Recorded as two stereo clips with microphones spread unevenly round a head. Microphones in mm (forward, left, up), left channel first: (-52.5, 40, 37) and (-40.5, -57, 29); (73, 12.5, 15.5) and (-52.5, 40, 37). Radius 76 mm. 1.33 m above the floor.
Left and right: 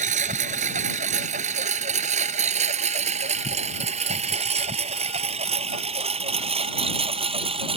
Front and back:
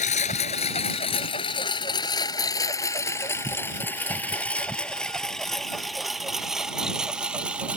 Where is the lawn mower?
60° right; by 7.8 s 110° right.